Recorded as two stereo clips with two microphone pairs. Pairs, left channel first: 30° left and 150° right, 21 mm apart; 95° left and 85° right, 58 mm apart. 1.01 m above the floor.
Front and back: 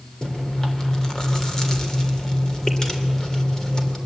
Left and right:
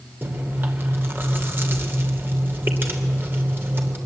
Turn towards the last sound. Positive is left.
turn(degrees=-35)